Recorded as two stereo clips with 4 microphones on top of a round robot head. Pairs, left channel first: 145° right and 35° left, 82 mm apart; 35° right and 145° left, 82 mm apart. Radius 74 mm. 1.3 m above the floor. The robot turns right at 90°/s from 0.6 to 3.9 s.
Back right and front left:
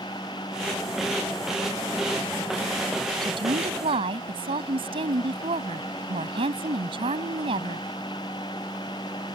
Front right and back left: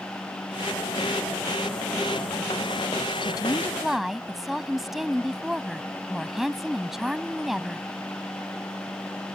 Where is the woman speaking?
5° right; by 7.9 s 55° left.